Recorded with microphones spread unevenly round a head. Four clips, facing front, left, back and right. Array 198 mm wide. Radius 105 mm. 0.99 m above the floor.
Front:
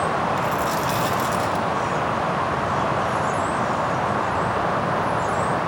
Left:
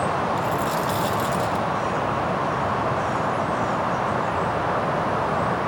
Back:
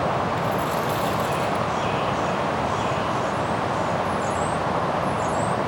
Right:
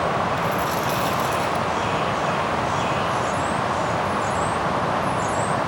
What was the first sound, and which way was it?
A dropped coin, 30° left.